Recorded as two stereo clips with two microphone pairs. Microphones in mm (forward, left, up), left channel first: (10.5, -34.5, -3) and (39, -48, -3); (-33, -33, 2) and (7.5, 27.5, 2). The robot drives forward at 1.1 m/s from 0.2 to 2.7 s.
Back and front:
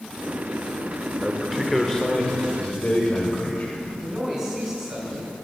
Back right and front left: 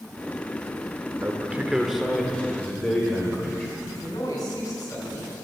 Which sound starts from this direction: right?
A man speaking, at 4.0 s.